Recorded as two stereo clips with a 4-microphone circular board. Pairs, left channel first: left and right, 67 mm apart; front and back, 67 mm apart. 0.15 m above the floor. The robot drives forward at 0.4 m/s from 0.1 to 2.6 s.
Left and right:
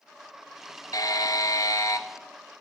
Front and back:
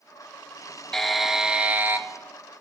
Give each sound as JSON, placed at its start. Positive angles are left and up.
{"t": 0.9, "sound": "a buzzer", "azimuth_deg": 85, "distance_m": 0.7}